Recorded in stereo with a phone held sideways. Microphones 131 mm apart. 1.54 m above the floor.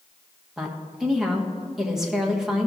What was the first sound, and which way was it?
A woman speaking, 5° right (ahead or behind).